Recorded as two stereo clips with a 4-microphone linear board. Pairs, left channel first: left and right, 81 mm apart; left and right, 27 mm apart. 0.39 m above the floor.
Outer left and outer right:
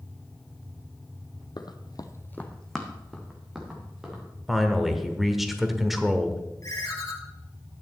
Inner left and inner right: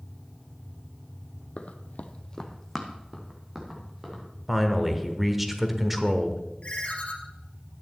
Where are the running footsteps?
55° left (ahead or behind), 0.9 m; by 4.2 s 5° right (ahead or behind), 3.5 m.